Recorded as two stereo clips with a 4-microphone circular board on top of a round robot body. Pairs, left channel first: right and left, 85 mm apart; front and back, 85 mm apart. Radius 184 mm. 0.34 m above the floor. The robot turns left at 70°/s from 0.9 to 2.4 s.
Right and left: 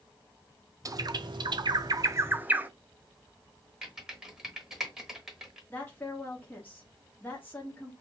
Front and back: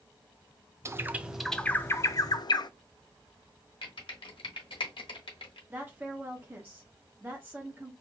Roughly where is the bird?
Behind left.